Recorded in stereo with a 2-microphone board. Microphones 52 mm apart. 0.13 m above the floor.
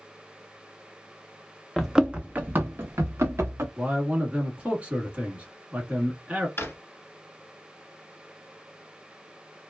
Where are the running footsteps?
Centre (ahead or behind), 0.6 m; by 3.7 s 65° right (ahead or behind), 1.1 m.